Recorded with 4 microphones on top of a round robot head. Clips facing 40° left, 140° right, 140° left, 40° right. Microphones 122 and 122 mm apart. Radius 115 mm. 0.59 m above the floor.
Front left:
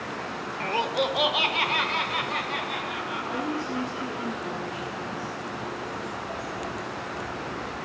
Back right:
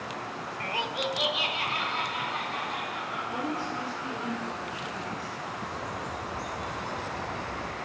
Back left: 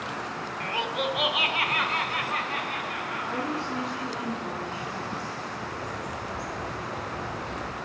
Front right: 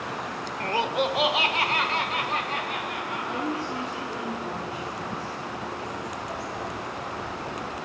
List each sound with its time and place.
0.6 s laughter: 10° right, 0.8 m; by 4.2 s 25° left, 5 m
3.2 s a woman speaking: 75° left, 7.5 m
5.6 s a bird: 170° left, 3.5 m